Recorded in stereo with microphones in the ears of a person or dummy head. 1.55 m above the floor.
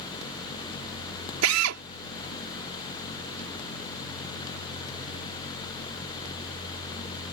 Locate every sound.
1.4 s a drill: 90° right